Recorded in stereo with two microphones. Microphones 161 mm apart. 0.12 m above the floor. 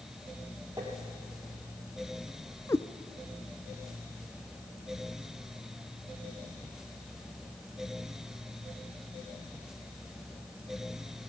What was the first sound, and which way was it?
Tapping, 20° right (ahead or behind).